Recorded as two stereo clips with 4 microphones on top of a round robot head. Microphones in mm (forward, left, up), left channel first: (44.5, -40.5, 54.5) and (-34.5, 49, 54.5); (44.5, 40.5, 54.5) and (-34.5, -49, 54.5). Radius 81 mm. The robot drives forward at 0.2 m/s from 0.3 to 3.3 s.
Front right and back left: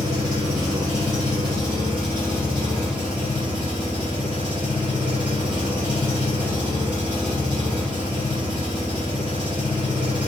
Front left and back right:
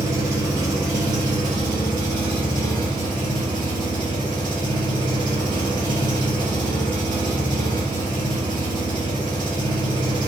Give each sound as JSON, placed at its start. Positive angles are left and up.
{"t": 0.0, "sound": "an engine running", "azimuth_deg": 175, "distance_m": 0.8}